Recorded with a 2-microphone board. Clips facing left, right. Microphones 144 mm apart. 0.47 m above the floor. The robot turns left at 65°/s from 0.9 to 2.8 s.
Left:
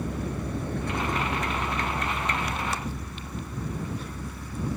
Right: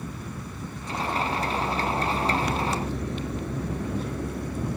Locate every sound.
0.0 s a vehicle: 70° left (ahead or behind); by 4.8 s 60° right (ahead or behind)